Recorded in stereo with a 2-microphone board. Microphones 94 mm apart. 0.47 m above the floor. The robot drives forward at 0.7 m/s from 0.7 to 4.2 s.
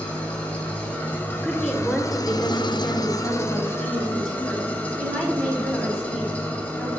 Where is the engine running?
15° left (ahead or behind), 1.5 m; by 7.0 s 20° left (ahead or behind), 1.2 m.